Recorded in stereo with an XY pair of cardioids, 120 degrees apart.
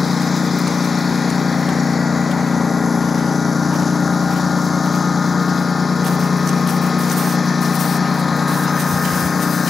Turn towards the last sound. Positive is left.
turn(degrees=25)